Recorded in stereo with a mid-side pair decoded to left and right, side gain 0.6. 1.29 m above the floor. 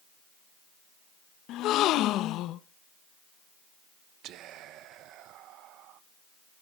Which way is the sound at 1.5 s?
65° left.